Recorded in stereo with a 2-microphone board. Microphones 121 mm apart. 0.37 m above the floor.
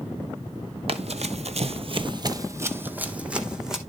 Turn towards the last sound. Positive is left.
turn(degrees=-5)  # may be behind; listen again after turning